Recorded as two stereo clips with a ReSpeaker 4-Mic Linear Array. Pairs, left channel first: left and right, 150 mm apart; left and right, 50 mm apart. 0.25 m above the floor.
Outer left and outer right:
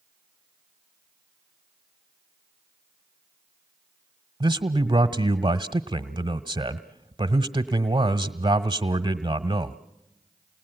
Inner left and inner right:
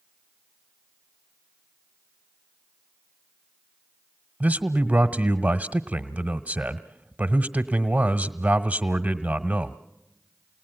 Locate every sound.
4.4 s a man speaking: 30° right (ahead or behind), 1.1 m